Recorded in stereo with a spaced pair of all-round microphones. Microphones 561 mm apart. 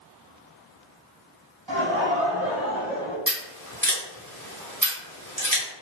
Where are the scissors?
35° right (ahead or behind), 1.6 m.